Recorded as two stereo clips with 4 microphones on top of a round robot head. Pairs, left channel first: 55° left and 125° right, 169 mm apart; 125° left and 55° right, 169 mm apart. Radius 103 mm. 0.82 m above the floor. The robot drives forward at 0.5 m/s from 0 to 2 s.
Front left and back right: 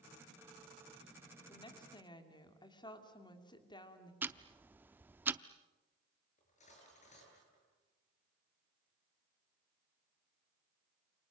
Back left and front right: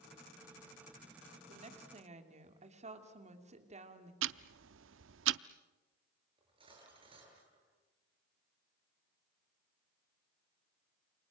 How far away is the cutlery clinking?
About 9 m.